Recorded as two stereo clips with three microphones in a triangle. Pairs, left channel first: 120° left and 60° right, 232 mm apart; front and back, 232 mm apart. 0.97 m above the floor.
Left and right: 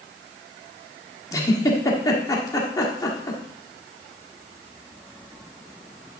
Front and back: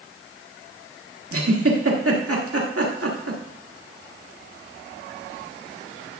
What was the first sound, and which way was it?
A giggle, 165° right.